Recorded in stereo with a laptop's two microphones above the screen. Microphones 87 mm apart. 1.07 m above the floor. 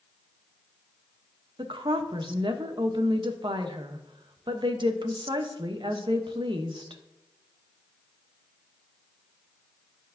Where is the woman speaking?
60° right (ahead or behind), 1.0 m.